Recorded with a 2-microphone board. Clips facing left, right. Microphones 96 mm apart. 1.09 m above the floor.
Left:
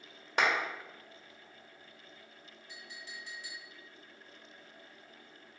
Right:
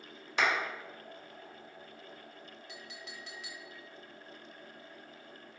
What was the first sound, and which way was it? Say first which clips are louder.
A clap: left 1 dB; 50° left (ahead or behind).